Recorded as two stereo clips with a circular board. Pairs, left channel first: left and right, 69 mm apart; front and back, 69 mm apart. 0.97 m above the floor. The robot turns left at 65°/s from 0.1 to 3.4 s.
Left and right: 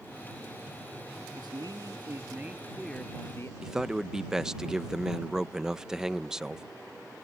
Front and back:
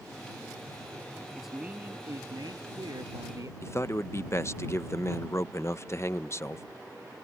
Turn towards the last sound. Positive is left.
turn(degrees=-10)